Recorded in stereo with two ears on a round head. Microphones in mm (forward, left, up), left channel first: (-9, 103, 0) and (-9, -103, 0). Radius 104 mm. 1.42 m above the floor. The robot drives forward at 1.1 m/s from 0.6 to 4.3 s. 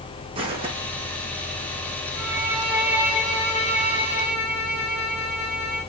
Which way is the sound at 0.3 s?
25° right (ahead or behind).